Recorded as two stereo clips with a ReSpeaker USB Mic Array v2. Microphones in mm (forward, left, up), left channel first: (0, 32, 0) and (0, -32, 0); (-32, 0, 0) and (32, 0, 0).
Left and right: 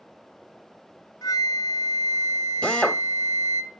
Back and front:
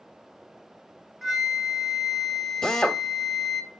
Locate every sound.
1.2 s a flute: 85° left, 0.7 m
2.6 s a drill: 115° left, 0.6 m